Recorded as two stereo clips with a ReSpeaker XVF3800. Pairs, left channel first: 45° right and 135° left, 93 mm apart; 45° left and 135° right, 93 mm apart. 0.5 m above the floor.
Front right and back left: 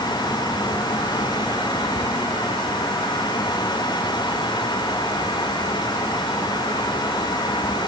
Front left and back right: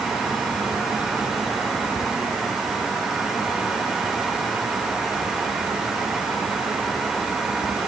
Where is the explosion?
I don't hear an explosion.